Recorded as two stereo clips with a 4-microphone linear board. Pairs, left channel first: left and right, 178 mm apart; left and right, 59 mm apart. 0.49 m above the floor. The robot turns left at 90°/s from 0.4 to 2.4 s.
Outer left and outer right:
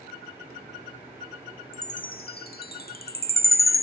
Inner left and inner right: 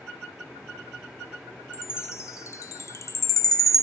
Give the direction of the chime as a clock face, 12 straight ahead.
7 o'clock.